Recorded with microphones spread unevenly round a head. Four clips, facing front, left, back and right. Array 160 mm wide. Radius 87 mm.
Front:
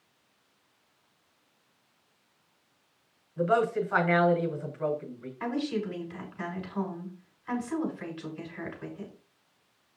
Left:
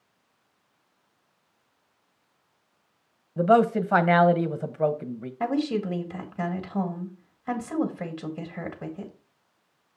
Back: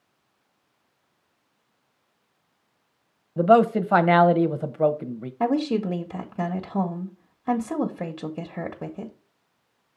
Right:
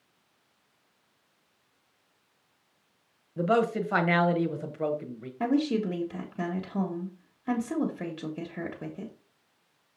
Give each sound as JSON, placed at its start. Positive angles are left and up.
{"t": 3.4, "sound": "a man speaking", "azimuth_deg": 165, "distance_m": 1.0}
{"t": 5.4, "sound": "a woman speaking", "azimuth_deg": -175, "distance_m": 1.5}